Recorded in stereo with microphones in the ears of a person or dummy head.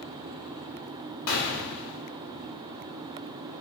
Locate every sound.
1.3 s a gunshot: 70° left (ahead or behind), 0.6 m